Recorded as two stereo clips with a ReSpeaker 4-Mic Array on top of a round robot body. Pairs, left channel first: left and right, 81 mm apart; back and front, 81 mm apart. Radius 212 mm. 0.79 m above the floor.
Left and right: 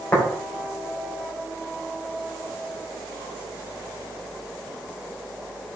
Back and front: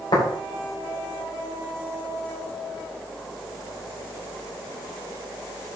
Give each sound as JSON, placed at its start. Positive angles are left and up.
{"t": 0.1, "sound": "tapping", "azimuth_deg": 155, "distance_m": 4.0}